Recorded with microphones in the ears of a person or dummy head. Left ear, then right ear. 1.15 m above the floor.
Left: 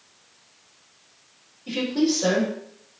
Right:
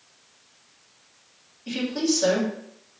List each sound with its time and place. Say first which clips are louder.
1.7 s a woman speaking: left 2 dB; 80° right, 2 m